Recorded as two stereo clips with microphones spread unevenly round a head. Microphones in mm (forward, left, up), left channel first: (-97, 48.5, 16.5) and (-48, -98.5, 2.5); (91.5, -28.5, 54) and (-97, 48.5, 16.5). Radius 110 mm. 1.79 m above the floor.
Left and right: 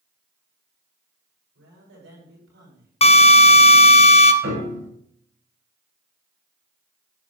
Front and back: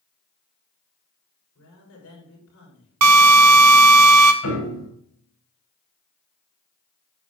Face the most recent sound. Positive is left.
turn(degrees=-40)